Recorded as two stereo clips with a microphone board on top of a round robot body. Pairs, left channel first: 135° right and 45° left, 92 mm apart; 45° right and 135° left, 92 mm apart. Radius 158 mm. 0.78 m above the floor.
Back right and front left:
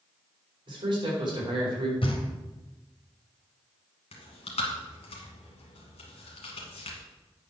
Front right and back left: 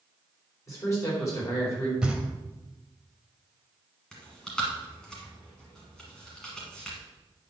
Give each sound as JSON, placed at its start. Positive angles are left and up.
{"t": 0.7, "sound": "a man speaking", "azimuth_deg": 10, "distance_m": 4.5}
{"t": 2.0, "sound": "knocking", "azimuth_deg": -145, "distance_m": 1.9}
{"t": 4.1, "sound": "chewing", "azimuth_deg": -130, "distance_m": 1.3}